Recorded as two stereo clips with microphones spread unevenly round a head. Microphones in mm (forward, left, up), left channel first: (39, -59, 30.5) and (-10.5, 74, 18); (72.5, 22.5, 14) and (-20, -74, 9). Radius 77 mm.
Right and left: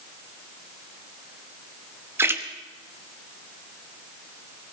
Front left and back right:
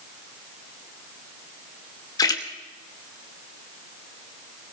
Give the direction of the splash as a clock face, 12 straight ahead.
11 o'clock.